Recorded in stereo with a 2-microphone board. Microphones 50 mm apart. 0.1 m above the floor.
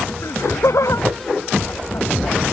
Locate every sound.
0.2 s laughter: 80° left